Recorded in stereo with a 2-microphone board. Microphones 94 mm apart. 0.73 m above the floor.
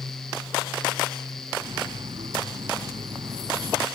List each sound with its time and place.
1.6 s cutlery clinking: 65° right (ahead or behind)